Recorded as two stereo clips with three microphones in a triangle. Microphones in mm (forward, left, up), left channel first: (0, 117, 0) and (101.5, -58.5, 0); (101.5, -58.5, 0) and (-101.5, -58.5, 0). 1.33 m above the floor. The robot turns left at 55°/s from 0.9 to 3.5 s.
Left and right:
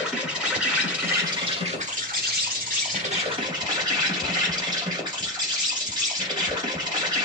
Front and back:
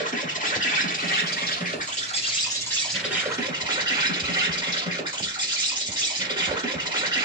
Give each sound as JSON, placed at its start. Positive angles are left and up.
{"t": 0.0, "sound": "an insect", "azimuth_deg": 25, "distance_m": 1.8}